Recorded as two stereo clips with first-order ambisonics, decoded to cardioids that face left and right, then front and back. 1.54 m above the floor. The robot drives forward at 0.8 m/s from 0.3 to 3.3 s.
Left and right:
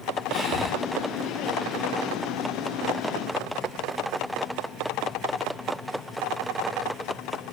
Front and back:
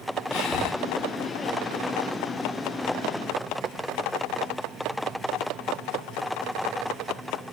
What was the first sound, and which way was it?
Breathing, 5° right.